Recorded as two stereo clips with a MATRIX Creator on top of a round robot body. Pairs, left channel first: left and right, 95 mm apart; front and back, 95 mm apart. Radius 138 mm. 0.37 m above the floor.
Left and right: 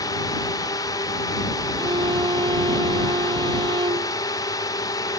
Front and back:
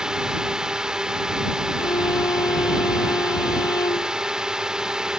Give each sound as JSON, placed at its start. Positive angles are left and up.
{"t": 0.0, "sound": "a drone", "azimuth_deg": 100}
{"t": 1.8, "sound": "a violin", "azimuth_deg": -50}